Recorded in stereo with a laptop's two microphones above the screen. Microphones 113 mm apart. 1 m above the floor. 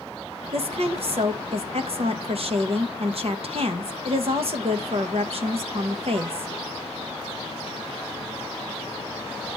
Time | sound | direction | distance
0.5 | a woman speaking | 60° right (ahead or behind) | 1.0 m